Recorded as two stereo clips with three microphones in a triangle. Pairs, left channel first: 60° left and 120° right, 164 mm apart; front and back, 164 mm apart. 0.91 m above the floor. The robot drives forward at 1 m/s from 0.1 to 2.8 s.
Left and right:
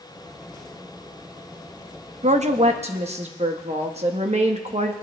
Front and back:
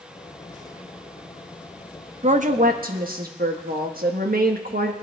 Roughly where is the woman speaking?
Behind right.